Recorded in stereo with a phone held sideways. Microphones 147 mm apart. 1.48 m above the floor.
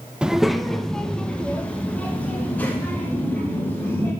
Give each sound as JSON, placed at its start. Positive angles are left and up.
{"t": 0.2, "sound": "a child speaking", "side_deg": -5, "distance_m": 0.6}